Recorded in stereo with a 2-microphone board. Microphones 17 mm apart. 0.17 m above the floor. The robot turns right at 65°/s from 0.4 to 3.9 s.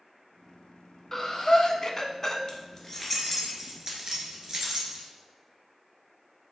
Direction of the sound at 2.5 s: 45° left (ahead or behind).